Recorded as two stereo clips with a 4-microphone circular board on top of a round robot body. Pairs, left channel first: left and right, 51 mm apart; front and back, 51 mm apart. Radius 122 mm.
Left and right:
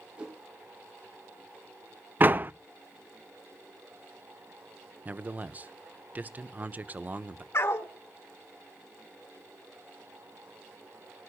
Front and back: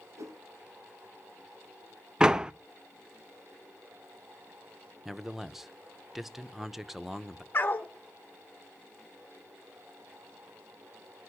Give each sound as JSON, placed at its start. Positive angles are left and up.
{"t": 0.2, "sound": "a whoosh", "azimuth_deg": -165, "distance_m": 2.5}
{"t": 2.2, "sound": "a door slam", "azimuth_deg": -115, "distance_m": 0.6}
{"t": 5.0, "sound": "a man speaking", "azimuth_deg": -100, "distance_m": 0.9}
{"t": 7.5, "sound": "a dog barking", "azimuth_deg": 55, "distance_m": 1.6}